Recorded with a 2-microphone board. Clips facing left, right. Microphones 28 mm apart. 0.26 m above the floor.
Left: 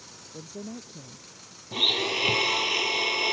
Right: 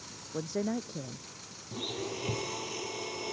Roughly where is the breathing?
I don't hear breathing.